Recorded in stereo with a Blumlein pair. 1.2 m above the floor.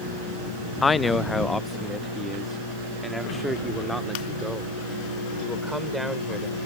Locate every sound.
0.8 s a man speaking: 15° left; by 6.6 s straight ahead